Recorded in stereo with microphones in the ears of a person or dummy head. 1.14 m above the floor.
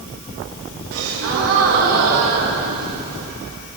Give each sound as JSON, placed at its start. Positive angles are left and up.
{"t": 0.9, "sound": "a gasp", "side_deg": -80, "distance_m": 2.5}